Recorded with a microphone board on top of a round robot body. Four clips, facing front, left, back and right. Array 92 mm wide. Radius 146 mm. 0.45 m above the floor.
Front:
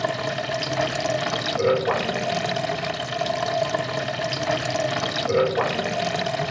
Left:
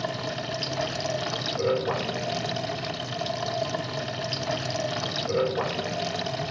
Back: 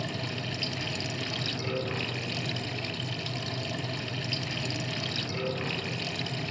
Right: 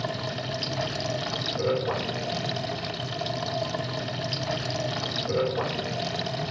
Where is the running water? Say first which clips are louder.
Left 1 dB, front 10 dB; 5° left, 0.8 m.